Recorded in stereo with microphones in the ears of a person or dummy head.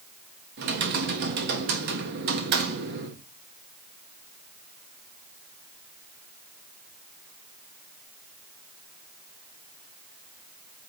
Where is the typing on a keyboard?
55° right (ahead or behind), 1.4 m.